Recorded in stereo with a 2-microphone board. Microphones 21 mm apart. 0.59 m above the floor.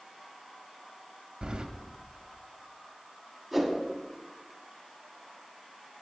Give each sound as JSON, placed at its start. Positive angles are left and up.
{"t": 1.4, "sound": "keys jangling", "side_deg": -45, "distance_m": 0.5}
{"t": 3.5, "sound": "a whoosh", "side_deg": 0, "distance_m": 1.2}